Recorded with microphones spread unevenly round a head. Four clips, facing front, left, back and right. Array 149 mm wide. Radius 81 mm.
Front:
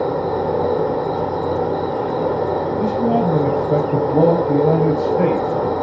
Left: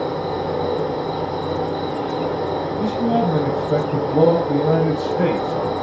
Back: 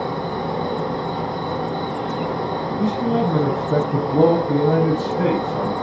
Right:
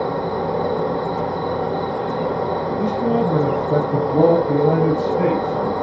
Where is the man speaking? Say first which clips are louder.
Even, front 1 dB; 5° left, 4.5 m.